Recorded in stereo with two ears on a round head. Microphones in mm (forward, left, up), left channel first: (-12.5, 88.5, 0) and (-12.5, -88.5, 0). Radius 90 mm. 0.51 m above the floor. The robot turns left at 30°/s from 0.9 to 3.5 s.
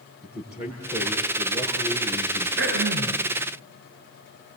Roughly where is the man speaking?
Ahead.